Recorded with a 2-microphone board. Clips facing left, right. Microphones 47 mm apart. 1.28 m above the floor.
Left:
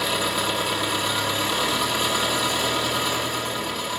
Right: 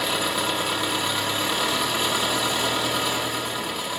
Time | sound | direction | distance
0.0 | an engine running | 10° right (ahead or behind) | 0.8 m